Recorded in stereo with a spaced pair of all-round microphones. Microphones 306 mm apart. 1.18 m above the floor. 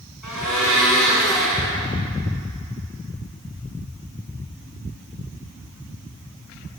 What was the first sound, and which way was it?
A blender, 85° left.